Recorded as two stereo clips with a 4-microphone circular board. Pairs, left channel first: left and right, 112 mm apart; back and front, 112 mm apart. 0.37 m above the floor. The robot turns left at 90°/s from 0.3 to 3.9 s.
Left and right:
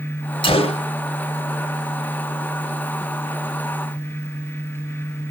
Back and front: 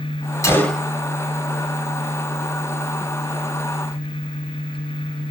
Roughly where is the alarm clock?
I don't hear an alarm clock.